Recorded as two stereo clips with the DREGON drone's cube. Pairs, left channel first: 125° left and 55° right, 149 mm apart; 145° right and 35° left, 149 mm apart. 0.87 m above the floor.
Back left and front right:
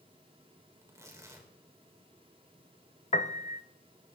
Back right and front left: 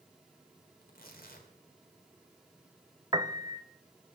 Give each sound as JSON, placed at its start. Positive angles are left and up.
{"t": 0.8, "sound": "tearing paper", "azimuth_deg": -125, "distance_m": 3.5}
{"t": 3.1, "sound": "a piano", "azimuth_deg": 95, "distance_m": 0.7}